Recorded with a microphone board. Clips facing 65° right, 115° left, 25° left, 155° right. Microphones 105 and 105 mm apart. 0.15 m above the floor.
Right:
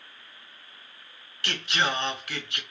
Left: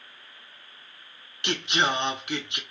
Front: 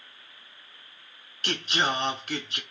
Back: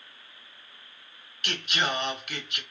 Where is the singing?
55° left, 0.5 m.